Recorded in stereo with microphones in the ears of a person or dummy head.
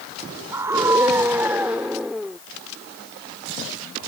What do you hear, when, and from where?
0.5 s a scream: 15° right (ahead or behind); by 2.4 s centre (ahead or behind)